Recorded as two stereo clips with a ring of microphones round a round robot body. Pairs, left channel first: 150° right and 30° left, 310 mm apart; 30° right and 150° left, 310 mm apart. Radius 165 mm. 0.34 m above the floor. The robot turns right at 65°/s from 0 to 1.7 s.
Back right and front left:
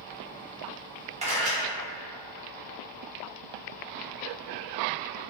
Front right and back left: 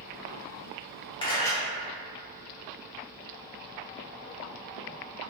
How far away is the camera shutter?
About 1.0 m.